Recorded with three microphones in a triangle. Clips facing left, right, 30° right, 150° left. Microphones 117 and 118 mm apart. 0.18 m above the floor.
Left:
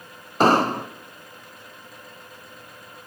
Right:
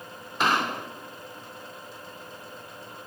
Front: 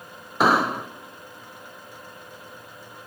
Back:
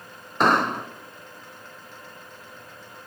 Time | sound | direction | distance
0.4 | an explosion | 55° left | 0.7 m